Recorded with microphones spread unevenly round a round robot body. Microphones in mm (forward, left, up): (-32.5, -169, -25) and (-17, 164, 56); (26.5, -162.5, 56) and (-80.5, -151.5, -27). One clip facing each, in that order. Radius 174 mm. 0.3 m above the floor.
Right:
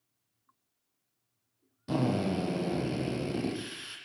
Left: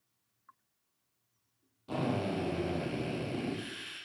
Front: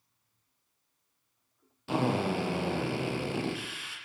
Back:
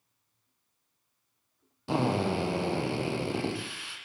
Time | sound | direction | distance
1.9 | a drill | 125° right | 8.5 m